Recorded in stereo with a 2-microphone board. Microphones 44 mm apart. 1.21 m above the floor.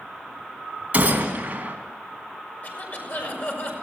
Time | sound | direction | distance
0.9 | a gunshot | 35° right (ahead or behind) | 3 m
2.6 | a cough | 50° left (ahead or behind) | 6.5 m